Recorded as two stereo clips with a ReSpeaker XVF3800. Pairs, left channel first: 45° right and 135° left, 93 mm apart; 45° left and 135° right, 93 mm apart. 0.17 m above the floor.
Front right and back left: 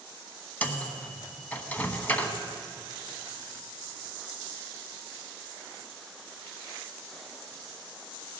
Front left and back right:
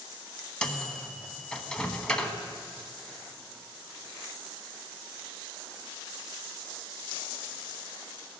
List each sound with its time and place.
0.6 s a microwave: 20° right, 1.0 m